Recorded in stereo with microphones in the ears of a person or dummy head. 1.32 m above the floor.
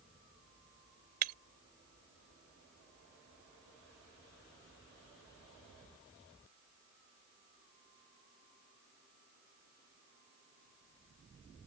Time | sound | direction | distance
1.2 | breaking glass | 45° right (ahead or behind) | ?